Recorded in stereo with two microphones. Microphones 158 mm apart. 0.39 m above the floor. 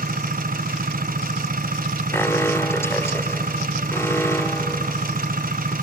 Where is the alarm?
15° left (ahead or behind), 0.6 m.